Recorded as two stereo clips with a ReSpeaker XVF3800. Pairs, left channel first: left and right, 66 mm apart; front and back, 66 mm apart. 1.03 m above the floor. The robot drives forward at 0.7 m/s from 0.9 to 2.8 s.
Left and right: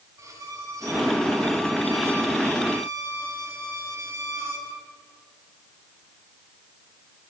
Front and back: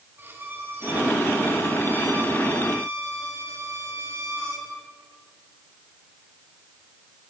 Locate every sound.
0.2 s a violin: 125° right, 5 m; by 4.7 s 135° right, 6 m